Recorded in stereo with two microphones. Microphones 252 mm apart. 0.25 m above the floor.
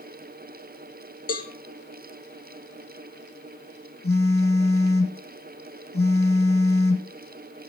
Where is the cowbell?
65° left (ahead or behind), 1.7 m.